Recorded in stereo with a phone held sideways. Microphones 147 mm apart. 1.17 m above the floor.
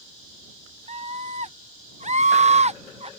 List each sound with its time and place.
0.9 s a scream: 45° right (ahead or behind)